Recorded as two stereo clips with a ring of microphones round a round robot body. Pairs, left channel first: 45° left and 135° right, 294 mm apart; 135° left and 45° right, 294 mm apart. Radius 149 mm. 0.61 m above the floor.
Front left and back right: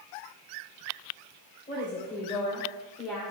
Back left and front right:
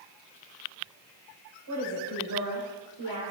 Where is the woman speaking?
20° right, 3.5 m; by 3.3 s 50° right, 2.5 m.